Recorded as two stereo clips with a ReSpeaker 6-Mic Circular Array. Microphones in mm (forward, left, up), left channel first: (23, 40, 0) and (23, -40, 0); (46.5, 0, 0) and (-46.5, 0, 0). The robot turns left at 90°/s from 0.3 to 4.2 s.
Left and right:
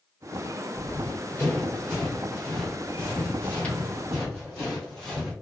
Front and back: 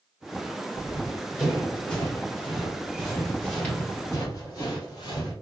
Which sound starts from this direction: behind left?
Running footsteps, at 0.8 s.